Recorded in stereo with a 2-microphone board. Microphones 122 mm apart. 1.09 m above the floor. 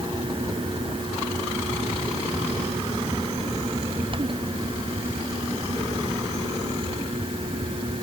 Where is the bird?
I don't hear a bird.